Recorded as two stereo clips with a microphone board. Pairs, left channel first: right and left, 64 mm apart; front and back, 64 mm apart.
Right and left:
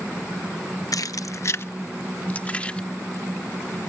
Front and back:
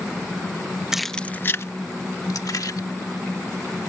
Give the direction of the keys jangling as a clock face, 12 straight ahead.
3 o'clock.